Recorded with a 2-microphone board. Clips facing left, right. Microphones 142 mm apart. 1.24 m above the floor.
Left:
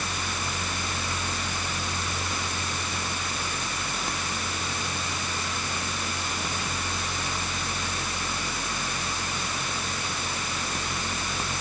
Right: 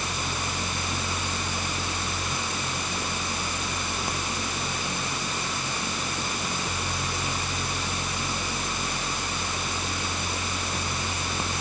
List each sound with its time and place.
Only background noise.